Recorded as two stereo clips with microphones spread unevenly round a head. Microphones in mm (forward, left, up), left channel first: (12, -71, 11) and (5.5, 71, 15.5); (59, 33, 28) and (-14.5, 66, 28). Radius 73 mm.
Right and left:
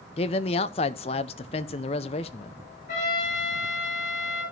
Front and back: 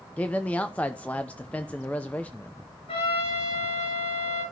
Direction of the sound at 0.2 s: 95° right.